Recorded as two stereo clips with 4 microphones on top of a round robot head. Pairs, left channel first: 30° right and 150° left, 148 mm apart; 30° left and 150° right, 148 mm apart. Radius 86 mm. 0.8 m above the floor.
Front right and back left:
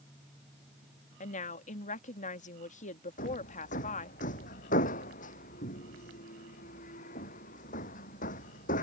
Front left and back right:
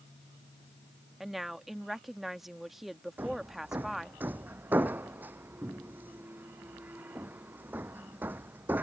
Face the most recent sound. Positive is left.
turn(degrees=-70)